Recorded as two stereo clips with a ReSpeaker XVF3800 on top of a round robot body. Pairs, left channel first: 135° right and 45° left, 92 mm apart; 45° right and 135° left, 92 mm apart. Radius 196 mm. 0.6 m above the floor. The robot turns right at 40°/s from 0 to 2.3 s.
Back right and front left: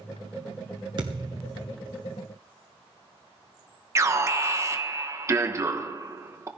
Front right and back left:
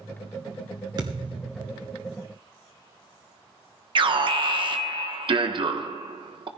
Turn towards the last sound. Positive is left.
turn(degrees=105)